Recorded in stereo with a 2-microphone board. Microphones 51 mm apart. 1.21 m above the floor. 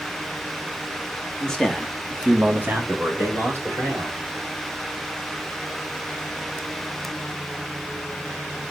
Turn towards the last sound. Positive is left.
turn(degrees=-65)  # may be behind; listen again after turning